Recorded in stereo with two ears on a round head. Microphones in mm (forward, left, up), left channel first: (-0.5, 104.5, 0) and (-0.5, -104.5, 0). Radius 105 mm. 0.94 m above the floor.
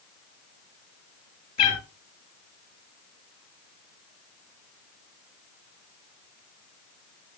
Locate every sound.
1.6 s a cat meowing: 30° left (ahead or behind), 3 m